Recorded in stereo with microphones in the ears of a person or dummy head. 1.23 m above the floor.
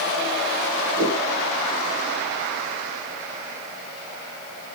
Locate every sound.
1.0 s a whoosh: 70° right (ahead or behind), 1.6 m